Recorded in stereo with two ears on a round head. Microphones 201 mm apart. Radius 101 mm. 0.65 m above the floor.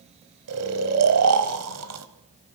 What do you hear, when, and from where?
0.5 s snoring: 85° right, 1.7 m